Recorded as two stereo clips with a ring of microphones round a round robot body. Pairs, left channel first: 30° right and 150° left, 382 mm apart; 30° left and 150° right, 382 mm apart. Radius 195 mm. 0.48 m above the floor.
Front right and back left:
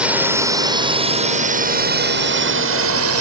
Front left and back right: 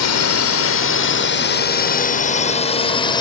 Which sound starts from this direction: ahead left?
A drone, at 0.0 s.